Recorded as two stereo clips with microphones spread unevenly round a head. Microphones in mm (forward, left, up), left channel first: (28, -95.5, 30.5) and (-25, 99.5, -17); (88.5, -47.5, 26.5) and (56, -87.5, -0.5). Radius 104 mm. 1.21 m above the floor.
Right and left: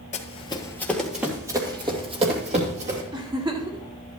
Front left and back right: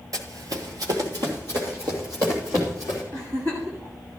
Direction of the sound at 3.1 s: 175° left.